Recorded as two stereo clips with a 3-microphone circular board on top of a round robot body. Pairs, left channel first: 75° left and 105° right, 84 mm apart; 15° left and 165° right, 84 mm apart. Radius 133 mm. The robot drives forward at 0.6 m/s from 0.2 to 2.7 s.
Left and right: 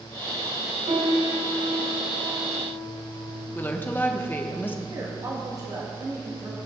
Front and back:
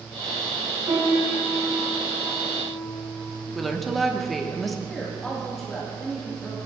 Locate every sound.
0.9 s a piano: 105° right, 4.5 m; by 3.5 s 120° right, 5 m
3.5 s a woman speaking: 105° left, 1.3 m
4.9 s a woman speaking: 70° right, 2 m